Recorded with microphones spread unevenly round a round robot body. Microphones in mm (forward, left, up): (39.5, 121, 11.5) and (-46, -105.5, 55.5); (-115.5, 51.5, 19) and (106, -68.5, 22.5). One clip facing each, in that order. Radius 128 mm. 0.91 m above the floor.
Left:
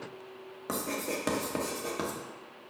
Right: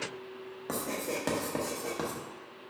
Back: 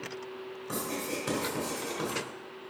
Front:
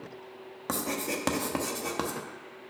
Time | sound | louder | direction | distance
0.7 | writing | left 1 dB, front 3 dB | 15° right | 0.9 m